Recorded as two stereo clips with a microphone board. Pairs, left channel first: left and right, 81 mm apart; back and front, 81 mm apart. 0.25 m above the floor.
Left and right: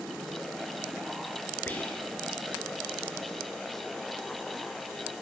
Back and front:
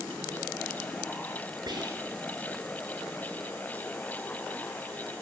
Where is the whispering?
25° left, 3 m.